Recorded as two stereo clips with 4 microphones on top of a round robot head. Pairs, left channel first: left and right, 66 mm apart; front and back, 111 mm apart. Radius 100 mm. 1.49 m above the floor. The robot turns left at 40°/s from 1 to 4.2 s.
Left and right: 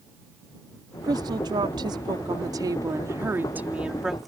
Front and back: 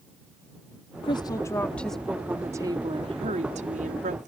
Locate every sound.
1.0 s a woman speaking: 50° right; by 4.3 s straight behind